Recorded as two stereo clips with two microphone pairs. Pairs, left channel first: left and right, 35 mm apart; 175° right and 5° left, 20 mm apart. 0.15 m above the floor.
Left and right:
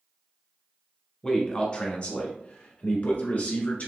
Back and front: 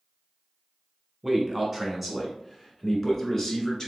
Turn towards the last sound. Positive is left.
turn(degrees=120)